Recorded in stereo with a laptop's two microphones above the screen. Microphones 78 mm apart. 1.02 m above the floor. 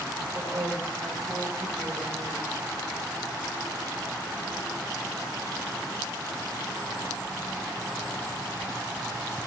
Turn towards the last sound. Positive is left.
turn(degrees=-50)  # may be behind; listen again after turning